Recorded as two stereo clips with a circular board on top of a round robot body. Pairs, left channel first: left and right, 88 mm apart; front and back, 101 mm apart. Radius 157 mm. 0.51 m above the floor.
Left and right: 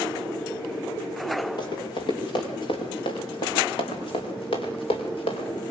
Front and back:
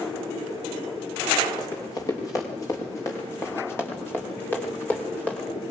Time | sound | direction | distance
1.6 | running footsteps | 55° left | 7.5 m